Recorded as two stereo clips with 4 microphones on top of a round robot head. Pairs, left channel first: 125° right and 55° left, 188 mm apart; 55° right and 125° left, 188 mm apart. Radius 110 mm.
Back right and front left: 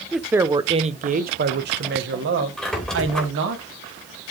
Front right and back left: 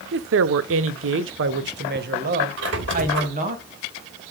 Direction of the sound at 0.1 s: 145° left.